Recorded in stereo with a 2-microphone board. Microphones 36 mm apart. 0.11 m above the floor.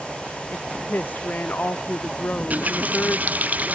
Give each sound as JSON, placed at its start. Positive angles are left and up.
{"t": 0.5, "sound": "a woman speaking", "side_deg": 60}
{"t": 2.3, "sound": "a running tap", "side_deg": -50}